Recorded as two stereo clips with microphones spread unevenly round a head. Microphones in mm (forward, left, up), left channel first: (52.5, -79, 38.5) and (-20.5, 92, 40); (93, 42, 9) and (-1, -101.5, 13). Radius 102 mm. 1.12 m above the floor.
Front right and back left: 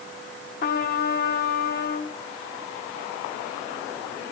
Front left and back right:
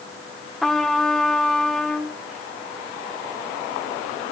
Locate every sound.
0.6 s a trumpet: 30° right, 1.0 m